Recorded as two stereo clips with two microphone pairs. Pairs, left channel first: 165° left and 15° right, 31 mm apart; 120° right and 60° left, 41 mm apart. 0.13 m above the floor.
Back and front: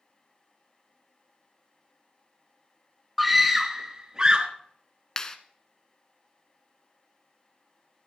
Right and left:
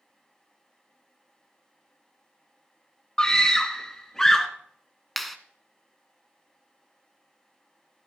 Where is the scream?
95° right, 1.1 m; by 4.5 s 50° right, 1.4 m.